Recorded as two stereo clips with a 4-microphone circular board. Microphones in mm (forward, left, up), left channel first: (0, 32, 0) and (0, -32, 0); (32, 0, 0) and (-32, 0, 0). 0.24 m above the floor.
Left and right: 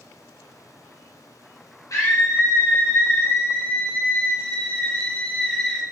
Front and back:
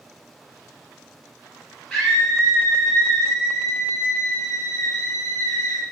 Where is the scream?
80° left, 3 m; by 5.8 s 5° left, 2 m.